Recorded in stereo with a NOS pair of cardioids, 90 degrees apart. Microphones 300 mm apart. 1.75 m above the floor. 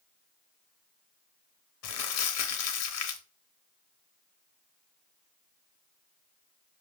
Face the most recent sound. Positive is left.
turn(degrees=60)